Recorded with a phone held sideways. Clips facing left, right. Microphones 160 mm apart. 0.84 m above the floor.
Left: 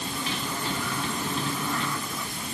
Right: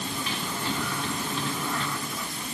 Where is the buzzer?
I don't hear a buzzer.